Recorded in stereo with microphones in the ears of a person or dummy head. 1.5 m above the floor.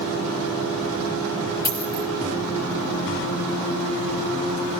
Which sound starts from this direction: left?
A dropped coin, at 1.6 s.